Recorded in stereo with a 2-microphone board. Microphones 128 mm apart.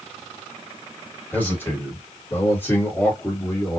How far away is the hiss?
No hiss in this recording.